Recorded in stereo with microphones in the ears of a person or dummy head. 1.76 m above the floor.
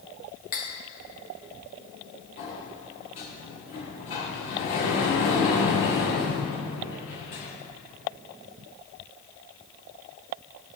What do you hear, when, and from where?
0.5 s cutlery clinking: 40° left (ahead or behind), 1.2 m
2.4 s a sliding door: 35° left (ahead or behind), 1.3 m